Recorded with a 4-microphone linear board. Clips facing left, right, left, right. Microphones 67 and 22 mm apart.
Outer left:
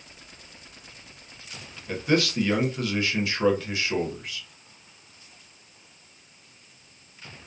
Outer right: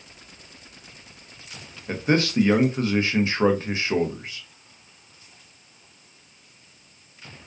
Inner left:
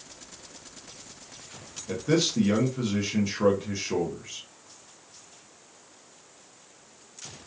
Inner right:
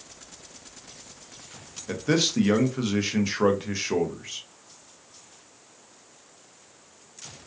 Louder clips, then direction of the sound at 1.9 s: Outer right 2 dB, inner right 1 dB; 30° right (ahead or behind).